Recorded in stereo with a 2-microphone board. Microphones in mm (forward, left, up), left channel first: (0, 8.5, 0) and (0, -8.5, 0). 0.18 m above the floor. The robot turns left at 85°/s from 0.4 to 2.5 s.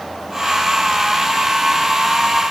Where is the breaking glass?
No breaking glass in this recording.